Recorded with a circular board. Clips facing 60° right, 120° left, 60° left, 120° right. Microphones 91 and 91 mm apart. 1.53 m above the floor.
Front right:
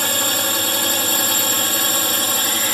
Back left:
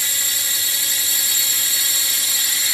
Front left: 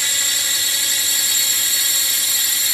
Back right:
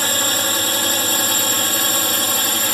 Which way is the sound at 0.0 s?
85° right.